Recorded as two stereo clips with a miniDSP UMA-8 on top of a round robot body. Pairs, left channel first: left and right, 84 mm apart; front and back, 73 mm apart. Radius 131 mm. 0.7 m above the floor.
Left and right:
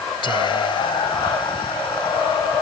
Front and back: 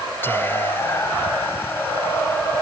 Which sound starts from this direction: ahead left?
Whispering, at 0.2 s.